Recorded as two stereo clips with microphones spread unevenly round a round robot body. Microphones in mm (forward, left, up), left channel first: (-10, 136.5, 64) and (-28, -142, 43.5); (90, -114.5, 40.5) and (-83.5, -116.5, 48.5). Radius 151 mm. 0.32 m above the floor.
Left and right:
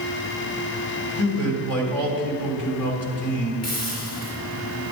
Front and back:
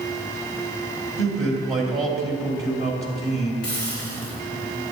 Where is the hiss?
50° left, 3 m.